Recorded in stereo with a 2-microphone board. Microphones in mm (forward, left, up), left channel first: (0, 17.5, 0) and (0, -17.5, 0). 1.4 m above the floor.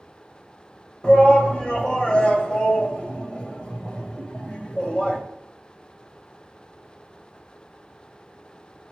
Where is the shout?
30° left (ahead or behind), 1.7 m.